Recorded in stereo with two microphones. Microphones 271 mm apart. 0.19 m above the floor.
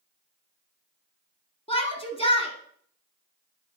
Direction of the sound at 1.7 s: 20° left (ahead or behind).